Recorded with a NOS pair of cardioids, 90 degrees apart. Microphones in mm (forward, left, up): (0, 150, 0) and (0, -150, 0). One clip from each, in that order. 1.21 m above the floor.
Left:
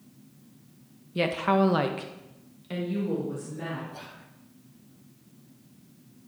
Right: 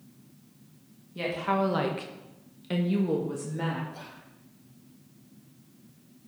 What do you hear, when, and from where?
1.1 s a woman speaking: 50° left, 1.3 m; by 3.8 s 55° right, 2.5 m
3.9 s whispering: 10° left, 1.3 m